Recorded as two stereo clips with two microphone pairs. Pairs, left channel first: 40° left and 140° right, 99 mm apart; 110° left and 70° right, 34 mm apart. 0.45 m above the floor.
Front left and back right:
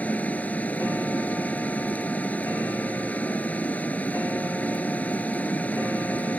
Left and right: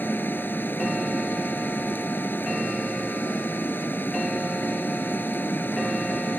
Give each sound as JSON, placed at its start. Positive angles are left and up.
{"t": 0.0, "sound": "running water", "azimuth_deg": 115}